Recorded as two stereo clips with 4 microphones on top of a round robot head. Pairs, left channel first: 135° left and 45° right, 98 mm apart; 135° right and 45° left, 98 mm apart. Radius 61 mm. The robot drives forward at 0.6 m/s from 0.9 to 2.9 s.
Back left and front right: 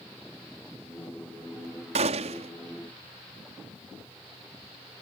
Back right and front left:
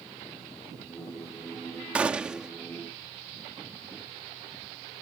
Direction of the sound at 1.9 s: 35° right.